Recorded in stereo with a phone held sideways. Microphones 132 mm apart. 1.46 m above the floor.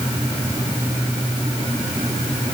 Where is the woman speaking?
No woman speaking in this recording.